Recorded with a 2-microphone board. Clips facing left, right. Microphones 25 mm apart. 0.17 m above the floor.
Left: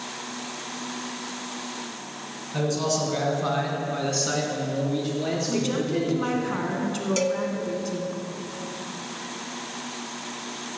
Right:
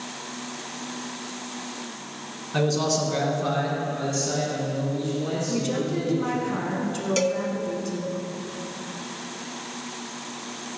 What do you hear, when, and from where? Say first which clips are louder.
2.5 s a man speaking: right 2 dB; 30° right (ahead or behind), 2 m; by 6.5 s 70° left (ahead or behind), 5.5 m
5.5 s a woman speaking: even; 15° left (ahead or behind), 1.8 m
7.2 s a cowbell: right 2 dB; 10° right (ahead or behind), 0.7 m